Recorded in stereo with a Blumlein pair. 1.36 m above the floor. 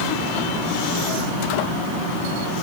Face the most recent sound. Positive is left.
No sound to turn to.